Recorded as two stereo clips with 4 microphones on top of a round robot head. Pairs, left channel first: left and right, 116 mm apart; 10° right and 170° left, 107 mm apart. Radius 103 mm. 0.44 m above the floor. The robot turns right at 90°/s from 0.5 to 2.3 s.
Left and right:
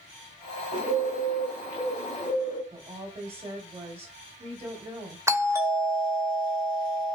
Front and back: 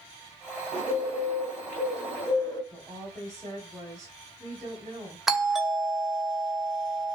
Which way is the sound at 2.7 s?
125° right.